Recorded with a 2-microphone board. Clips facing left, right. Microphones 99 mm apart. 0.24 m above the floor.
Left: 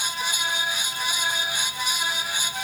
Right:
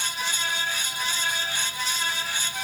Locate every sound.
Only background noise.